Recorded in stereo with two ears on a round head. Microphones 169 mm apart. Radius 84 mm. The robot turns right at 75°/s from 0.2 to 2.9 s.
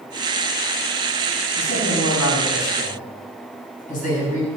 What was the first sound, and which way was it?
A man speaking, 35° left.